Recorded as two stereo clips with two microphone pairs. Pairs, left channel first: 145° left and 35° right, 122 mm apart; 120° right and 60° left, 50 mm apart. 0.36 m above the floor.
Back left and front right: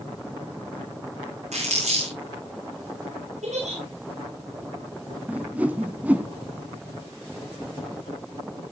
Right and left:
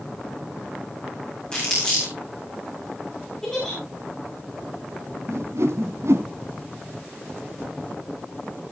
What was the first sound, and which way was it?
Crumpling, 50° right.